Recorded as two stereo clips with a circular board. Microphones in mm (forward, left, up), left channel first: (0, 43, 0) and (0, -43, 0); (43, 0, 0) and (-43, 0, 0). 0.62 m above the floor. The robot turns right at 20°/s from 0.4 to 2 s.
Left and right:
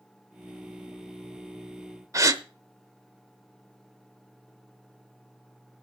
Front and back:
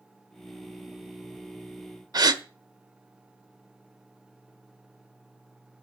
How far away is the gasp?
About 0.7 m.